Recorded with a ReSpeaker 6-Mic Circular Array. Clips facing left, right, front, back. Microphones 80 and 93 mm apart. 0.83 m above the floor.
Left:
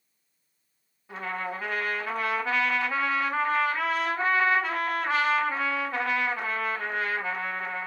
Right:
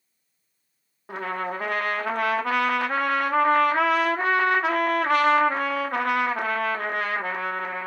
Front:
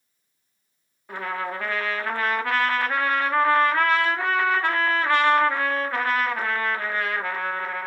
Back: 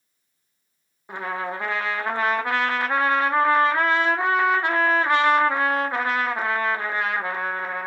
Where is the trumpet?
110° right, 0.7 m.